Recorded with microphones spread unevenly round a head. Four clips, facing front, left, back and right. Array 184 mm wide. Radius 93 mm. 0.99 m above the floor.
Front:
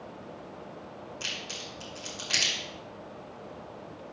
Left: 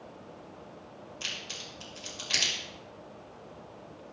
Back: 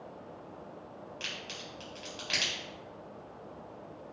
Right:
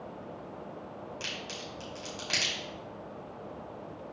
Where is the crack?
105° right, 4 m.